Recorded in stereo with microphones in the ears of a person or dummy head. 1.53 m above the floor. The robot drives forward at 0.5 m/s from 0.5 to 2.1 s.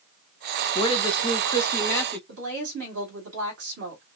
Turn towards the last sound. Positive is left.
turn(degrees=-65)  # may be behind; listen again after turning